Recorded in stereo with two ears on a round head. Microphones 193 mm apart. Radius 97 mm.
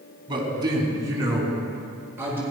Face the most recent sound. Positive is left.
turn(degrees=-10)  # may be behind; listen again after turning